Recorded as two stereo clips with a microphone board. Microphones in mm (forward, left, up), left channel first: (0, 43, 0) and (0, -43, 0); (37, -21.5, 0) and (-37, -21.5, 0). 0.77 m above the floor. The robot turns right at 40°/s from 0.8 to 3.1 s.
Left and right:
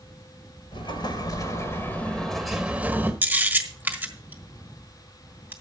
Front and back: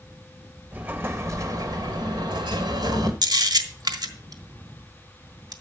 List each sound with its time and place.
0.7 s an explosion: 115° left, 1.7 m; by 3.1 s 150° right, 1.7 m
3.2 s a camera shutter: 155° right, 1.4 m